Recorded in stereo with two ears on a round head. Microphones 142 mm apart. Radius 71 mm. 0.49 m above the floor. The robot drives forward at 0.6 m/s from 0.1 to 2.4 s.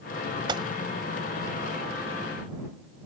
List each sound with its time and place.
0.5 s a gunshot: 30° right (ahead or behind)